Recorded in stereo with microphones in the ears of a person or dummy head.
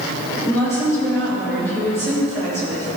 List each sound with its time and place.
0.4 s a woman speaking: 15° left (ahead or behind), 2.5 m